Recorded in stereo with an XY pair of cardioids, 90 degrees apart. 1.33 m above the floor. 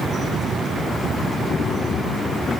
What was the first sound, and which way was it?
Only background noise.